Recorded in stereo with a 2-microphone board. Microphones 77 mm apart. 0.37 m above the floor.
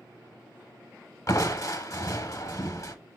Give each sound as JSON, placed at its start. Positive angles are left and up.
{"t": 1.3, "sound": "crushing", "side_deg": 40, "distance_m": 0.7}